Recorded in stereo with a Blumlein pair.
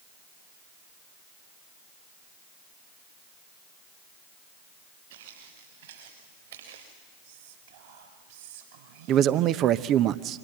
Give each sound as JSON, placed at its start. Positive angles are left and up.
{"t": 5.1, "sound": "footsteps", "azimuth_deg": -55, "distance_m": 7.0}
{"t": 7.2, "sound": "whispering", "azimuth_deg": -55, "distance_m": 5.5}
{"t": 9.1, "sound": "a man speaking", "azimuth_deg": -35, "distance_m": 0.8}